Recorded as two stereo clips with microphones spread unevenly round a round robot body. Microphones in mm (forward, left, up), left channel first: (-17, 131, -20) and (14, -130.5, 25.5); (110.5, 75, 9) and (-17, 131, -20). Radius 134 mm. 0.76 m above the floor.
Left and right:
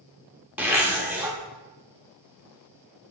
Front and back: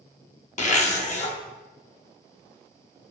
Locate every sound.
0.6 s a zipper: straight ahead, 0.8 m